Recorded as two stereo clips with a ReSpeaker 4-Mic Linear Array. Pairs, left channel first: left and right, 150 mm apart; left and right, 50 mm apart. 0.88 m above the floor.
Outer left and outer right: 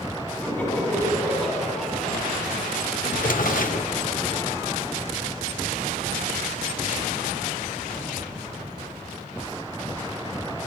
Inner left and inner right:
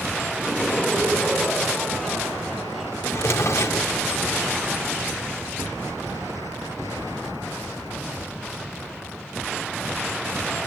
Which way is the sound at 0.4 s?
10° left (ahead or behind).